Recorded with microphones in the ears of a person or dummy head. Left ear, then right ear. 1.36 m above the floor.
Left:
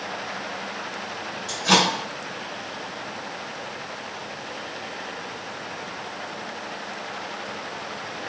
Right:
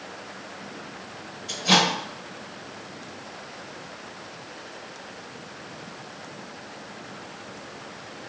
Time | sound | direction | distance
1.5 | a microwave | 15° left (ahead or behind) | 1.7 m